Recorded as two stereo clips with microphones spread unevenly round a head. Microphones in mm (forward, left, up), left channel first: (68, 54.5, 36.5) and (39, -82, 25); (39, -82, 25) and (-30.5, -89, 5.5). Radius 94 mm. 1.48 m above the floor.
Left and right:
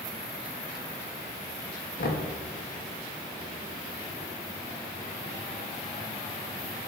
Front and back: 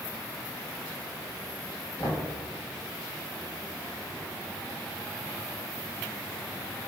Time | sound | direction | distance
2.0 | knocking | 65° left | 1.6 m